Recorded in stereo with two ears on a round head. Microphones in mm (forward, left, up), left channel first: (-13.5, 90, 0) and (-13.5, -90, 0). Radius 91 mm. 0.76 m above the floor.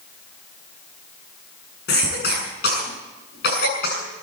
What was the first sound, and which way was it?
A cough, 50° left (ahead or behind).